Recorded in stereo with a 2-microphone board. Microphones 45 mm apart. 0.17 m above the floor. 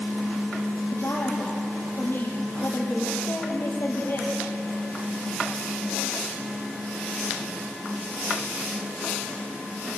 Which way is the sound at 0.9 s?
60° left (ahead or behind).